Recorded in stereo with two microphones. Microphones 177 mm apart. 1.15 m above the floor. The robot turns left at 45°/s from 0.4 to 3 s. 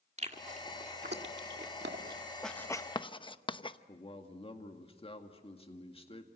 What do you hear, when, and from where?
0.2 s chewing: 40° right (ahead or behind), 1.9 m; by 2.2 s 60° right (ahead or behind), 1.9 m
2.4 s writing: centre (ahead or behind), 0.8 m; by 3.8 s 30° left (ahead or behind), 0.8 m
3.9 s a man speaking: 30° left (ahead or behind), 2 m